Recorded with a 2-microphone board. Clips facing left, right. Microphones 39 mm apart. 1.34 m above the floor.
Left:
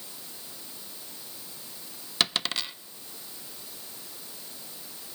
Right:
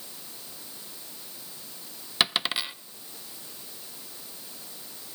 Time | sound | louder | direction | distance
2.2 | a dropped coin | right 2 dB | 15° right (ahead or behind) | 0.7 m